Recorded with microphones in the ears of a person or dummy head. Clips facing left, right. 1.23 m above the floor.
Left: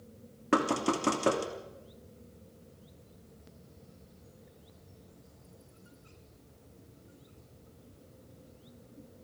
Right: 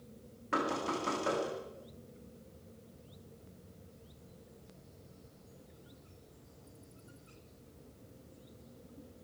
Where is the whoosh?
No whoosh in this recording.